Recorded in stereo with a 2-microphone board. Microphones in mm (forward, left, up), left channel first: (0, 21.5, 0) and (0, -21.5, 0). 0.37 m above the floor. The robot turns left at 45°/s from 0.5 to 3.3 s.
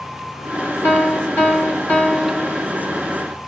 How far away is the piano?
About 1.5 m.